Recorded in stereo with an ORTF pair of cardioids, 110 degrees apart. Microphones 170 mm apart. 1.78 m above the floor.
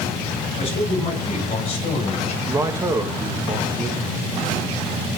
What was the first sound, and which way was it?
A man speaking, 35° left.